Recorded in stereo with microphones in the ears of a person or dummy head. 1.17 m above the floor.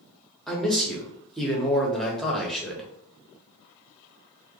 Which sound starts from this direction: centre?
A man speaking, at 0.5 s.